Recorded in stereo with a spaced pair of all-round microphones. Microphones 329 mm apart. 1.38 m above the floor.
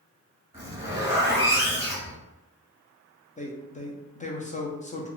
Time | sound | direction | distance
0.5 | a zipper | 10° right (ahead or behind) | 1.4 m
3.4 | a man speaking | 20° left (ahead or behind) | 0.6 m